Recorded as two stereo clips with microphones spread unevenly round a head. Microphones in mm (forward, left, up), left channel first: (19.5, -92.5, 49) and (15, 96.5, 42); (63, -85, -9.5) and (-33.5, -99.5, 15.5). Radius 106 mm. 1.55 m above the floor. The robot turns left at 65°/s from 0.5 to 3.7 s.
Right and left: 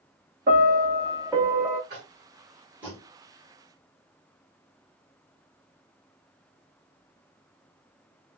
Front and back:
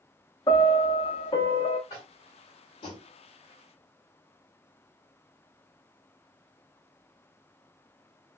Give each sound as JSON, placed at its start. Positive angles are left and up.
{"t": 0.5, "sound": "a piano", "azimuth_deg": 75, "distance_m": 0.7}
{"t": 1.9, "sound": "tapping", "azimuth_deg": 75, "distance_m": 1.6}